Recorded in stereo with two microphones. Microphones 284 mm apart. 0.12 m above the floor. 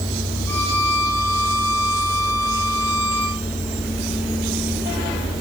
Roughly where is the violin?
Centre.